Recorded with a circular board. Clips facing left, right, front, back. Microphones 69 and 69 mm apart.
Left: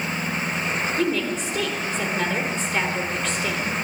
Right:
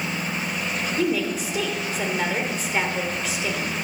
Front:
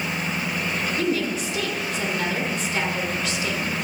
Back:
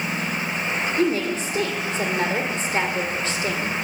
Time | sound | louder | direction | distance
1.0 | a woman speaking | right 2 dB, back 3 dB | 165° right | 1.6 m